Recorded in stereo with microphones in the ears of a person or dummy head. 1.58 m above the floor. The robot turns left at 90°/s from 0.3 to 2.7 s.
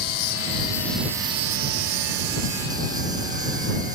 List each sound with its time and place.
0.0 s an insect: 60° left; by 4.0 s 155° right